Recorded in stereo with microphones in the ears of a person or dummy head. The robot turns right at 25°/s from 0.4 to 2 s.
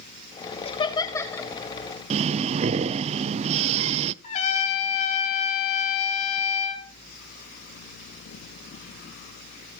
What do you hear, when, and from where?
0.7 s laughter: 25° left (ahead or behind), 2.5 m; by 1.5 s 5° left (ahead or behind), 2.5 m
2.1 s breathing: 35° right (ahead or behind), 0.5 m
4.2 s a trumpet: 45° left (ahead or behind), 4 m